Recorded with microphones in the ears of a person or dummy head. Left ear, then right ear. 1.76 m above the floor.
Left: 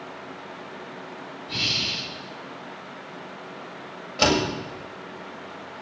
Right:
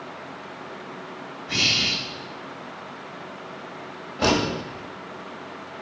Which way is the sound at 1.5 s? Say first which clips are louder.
Right 4 dB; 25° right (ahead or behind).